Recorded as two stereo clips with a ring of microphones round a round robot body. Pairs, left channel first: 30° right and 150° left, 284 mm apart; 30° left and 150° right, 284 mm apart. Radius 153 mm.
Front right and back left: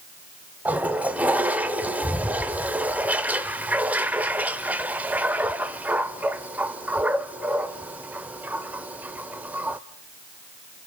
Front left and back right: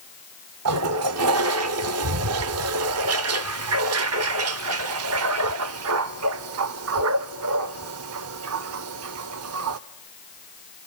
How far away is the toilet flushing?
About 0.6 m.